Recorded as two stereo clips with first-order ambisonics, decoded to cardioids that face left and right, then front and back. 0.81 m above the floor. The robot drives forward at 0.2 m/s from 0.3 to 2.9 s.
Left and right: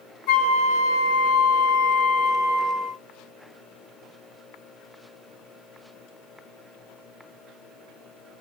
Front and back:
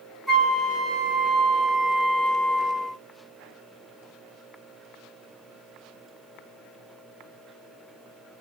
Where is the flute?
80° left, 2.0 m; by 3.0 s 100° left, 2.0 m.